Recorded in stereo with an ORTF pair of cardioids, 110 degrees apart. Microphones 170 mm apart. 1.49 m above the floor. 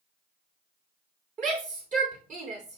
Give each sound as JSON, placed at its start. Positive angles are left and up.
{"t": 1.4, "sound": "a shout", "azimuth_deg": -50, "distance_m": 5.0}